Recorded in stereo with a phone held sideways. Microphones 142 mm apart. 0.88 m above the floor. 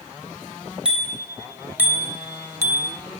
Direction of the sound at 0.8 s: 5° right (ahead or behind).